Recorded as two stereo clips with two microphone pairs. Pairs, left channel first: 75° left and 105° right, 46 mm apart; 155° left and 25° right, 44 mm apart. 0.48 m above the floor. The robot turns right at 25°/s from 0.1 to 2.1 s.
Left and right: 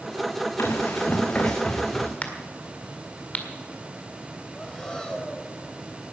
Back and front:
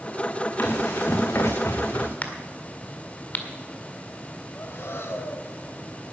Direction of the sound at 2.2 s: 120° left.